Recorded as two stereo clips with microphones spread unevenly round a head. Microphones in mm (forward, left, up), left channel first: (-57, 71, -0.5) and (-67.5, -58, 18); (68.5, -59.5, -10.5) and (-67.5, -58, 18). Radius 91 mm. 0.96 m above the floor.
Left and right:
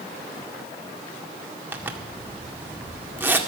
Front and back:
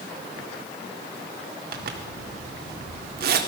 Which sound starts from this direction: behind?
A zipper, at 1.7 s.